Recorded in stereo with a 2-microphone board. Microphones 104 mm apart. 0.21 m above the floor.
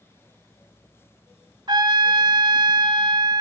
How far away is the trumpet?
About 0.9 m.